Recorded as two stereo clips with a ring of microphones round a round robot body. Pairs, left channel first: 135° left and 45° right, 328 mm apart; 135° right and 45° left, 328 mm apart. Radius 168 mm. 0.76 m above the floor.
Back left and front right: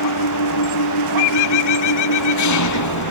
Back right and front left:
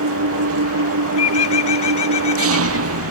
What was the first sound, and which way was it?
An engine running, 95° left.